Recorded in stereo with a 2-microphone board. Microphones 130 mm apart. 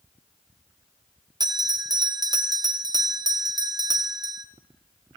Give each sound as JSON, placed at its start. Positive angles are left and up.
{"t": 1.4, "sound": "a bell", "side_deg": -30, "distance_m": 0.5}